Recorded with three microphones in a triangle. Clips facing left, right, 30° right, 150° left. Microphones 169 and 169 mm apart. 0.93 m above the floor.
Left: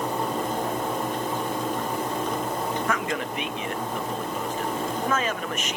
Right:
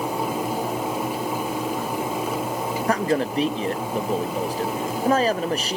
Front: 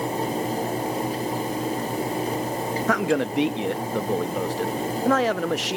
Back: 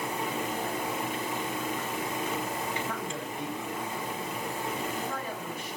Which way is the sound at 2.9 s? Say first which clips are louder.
Right 6 dB, front 13 dB; 30° right.